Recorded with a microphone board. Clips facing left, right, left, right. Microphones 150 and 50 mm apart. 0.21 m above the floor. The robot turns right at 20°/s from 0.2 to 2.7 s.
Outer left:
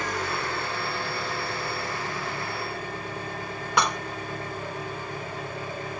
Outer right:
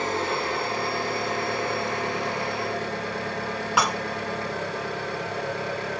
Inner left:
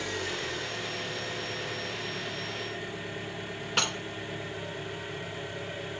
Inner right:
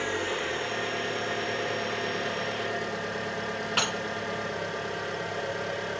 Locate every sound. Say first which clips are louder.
0.0 s an engine running: outer right 4 dB, inner right 4 dB; 150° right, 5 m; by 6.0 s 100° right, 5 m
3.8 s dishes clattering: even, inner right 1 dB; 5° right (ahead or behind), 1.3 m